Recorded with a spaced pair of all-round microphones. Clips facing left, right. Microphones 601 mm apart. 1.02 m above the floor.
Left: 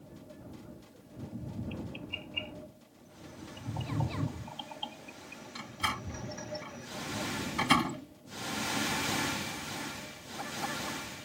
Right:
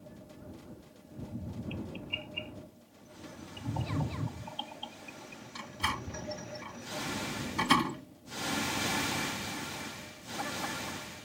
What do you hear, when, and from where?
5.5 s a door slam: 10° left (ahead or behind)